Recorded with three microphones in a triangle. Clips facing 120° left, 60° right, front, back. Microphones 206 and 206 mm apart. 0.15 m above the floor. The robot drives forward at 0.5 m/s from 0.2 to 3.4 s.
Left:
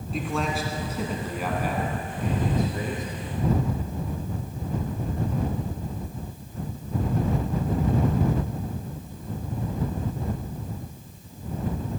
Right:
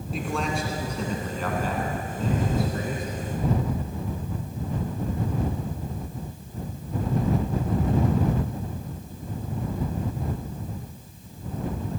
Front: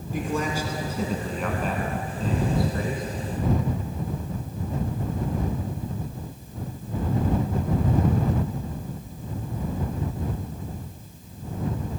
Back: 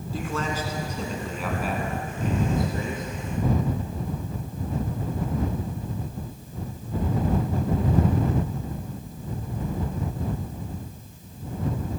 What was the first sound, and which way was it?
A man speaking, 30° left.